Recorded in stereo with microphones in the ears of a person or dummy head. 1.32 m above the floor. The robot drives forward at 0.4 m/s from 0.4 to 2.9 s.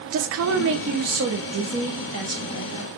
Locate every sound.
0.1 s a woman speaking: 70° right (ahead or behind), 0.5 m; by 2.9 s 25° right (ahead or behind), 1.2 m